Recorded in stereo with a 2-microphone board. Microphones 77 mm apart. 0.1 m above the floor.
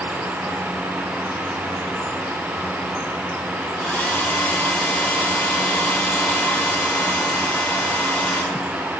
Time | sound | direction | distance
3.8 | a hair dryer | 15° left (ahead or behind) | 3.5 m